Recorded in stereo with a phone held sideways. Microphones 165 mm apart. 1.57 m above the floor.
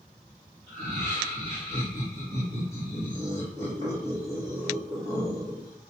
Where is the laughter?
40° right (ahead or behind), 2.5 m.